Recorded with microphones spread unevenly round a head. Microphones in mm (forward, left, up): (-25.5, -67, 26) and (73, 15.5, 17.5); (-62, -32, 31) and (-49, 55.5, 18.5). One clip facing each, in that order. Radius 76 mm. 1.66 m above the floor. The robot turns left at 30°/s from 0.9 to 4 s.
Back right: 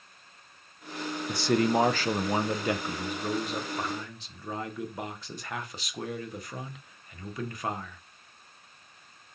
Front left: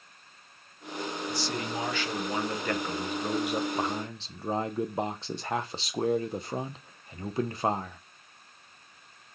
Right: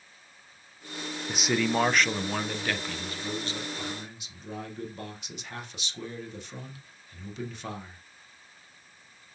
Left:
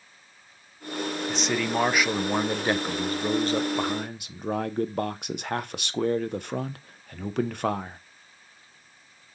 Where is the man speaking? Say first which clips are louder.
Back right 12 dB, right 2 dB; 170° right, 0.8 m; by 8.0 s 105° left, 0.8 m.